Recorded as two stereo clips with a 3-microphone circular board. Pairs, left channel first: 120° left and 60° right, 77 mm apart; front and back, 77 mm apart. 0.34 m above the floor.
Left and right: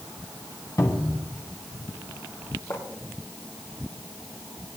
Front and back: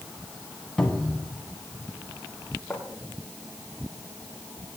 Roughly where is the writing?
Left.